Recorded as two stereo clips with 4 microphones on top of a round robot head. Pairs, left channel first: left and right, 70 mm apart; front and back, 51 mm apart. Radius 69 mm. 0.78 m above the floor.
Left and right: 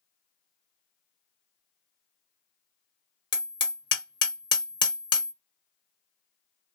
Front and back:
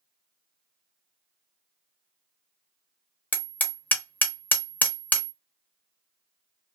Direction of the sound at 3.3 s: 60° left.